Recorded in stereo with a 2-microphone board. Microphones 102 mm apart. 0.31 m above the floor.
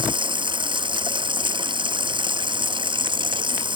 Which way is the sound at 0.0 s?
55° right (ahead or behind).